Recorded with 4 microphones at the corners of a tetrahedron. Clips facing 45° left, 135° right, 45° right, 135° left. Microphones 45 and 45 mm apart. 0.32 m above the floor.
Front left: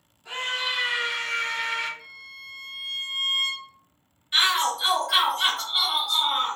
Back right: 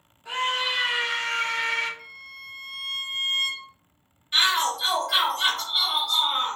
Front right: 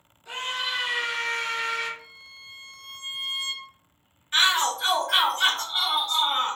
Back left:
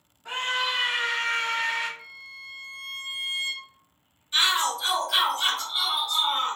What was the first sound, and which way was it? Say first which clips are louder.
A scream: back right 3 dB, back left 3 dB; 150° left.